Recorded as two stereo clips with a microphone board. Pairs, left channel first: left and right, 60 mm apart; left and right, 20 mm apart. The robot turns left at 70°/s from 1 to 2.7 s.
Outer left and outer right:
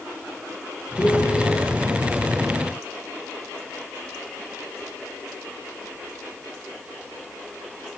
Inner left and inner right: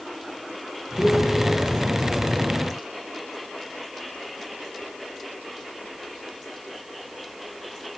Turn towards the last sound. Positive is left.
turn(degrees=-60)